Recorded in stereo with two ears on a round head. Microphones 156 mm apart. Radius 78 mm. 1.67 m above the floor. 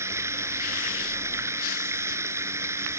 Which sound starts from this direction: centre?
Running water, at 0.0 s.